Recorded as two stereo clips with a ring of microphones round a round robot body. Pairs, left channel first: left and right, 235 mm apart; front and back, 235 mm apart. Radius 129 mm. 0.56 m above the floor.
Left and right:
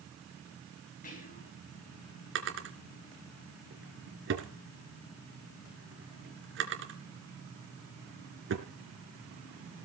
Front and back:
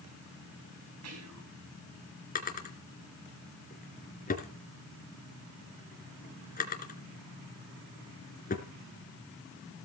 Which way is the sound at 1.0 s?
150° left.